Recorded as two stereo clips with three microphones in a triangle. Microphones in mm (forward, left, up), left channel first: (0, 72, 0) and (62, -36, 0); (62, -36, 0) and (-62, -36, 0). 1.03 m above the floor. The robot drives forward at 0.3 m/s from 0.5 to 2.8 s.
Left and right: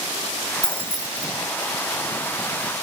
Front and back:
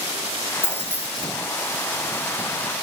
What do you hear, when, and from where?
0.6 s keys jangling: 70° left, 0.7 m; by 1.3 s 85° left, 0.7 m